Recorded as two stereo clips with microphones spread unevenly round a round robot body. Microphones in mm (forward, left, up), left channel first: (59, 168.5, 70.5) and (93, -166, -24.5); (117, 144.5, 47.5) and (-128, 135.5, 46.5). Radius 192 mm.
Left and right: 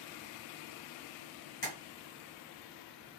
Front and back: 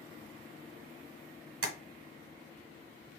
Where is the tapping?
160° left, 1.3 m.